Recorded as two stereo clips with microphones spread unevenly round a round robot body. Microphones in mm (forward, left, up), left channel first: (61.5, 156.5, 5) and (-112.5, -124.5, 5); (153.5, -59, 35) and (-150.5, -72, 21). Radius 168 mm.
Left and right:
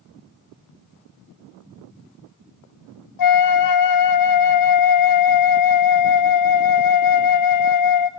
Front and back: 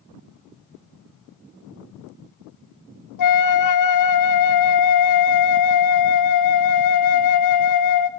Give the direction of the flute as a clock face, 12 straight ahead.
11 o'clock.